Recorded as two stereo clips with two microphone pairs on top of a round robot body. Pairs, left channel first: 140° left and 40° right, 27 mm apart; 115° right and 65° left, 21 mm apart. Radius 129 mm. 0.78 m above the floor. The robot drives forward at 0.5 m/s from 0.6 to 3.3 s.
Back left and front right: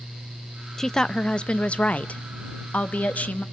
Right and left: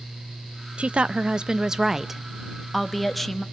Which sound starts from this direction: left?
A woman speaking, at 0.8 s.